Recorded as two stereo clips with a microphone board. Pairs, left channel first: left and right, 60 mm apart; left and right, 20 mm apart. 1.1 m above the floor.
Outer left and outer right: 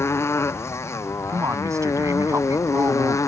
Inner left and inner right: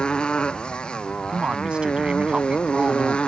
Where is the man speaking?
60° right (ahead or behind).